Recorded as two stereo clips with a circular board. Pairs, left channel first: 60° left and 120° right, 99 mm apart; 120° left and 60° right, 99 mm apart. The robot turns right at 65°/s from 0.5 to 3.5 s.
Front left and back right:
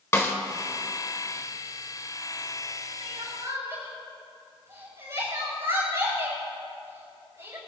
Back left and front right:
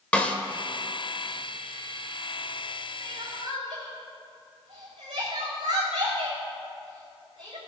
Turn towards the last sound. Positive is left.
turn(degrees=-65)